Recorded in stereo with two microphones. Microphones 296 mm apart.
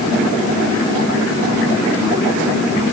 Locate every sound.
Only background noise.